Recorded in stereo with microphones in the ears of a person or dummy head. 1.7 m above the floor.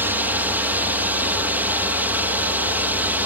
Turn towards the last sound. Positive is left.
turn(degrees=-10)  # may be behind; listen again after turning